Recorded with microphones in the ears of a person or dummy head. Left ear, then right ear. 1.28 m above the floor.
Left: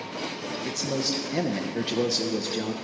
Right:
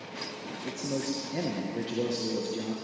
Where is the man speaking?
35° left (ahead or behind), 0.9 m.